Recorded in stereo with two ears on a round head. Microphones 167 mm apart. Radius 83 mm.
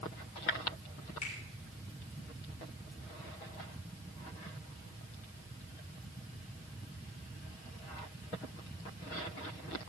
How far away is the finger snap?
About 6.5 m.